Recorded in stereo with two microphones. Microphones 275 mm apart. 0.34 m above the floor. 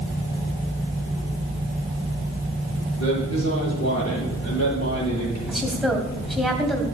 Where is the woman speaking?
Centre (ahead or behind), 2.5 m.